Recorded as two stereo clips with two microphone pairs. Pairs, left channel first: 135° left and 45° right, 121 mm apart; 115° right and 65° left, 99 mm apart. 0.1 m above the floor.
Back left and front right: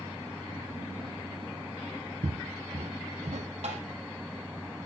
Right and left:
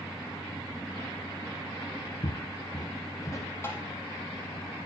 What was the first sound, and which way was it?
Footsteps, 75° right.